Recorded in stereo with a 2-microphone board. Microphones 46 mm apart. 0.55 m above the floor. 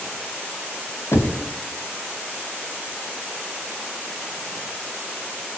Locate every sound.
1.1 s knocking: 70° left (ahead or behind), 3 m